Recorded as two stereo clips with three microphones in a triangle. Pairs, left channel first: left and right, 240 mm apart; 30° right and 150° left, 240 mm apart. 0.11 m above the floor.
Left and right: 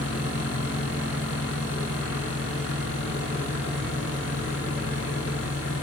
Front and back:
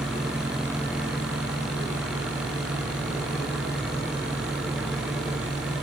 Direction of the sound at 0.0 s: 65° left.